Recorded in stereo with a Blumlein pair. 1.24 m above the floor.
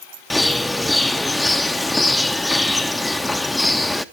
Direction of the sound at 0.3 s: 5° left.